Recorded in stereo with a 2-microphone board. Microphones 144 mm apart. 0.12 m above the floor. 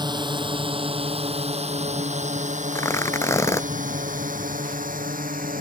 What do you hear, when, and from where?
0.0 s a drone: 30° right (ahead or behind); by 5.6 s 75° right (ahead or behind)
2.7 s tearing paper: 20° left (ahead or behind)